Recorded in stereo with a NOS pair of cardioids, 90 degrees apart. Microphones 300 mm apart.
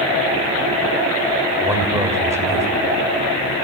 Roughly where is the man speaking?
Ahead.